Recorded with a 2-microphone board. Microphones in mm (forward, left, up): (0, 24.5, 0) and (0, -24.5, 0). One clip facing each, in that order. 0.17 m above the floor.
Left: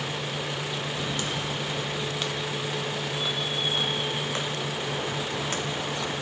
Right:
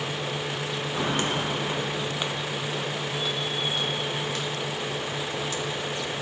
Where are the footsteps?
45° right (ahead or behind); by 6.2 s 60° left (ahead or behind).